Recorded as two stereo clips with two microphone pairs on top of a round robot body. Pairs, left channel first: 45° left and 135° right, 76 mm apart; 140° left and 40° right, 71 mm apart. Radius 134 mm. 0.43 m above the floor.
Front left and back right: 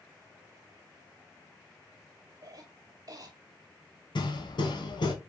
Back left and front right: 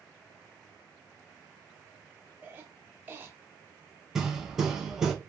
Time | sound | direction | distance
2.4 | a cough | 100° right | 1.3 m
4.2 | hammering | 45° left | 1.3 m